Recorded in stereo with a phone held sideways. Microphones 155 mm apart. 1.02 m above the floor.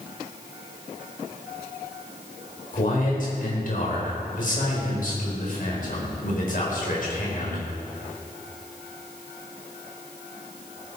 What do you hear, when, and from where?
2.7 s a man speaking: 60° left (ahead or behind), 5 m